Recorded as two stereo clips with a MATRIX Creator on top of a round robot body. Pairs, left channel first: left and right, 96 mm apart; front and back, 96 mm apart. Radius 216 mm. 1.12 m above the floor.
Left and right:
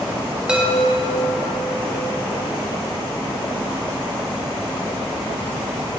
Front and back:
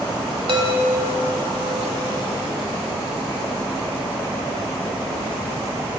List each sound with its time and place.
0.5 s a chime: 170° right, 1.5 m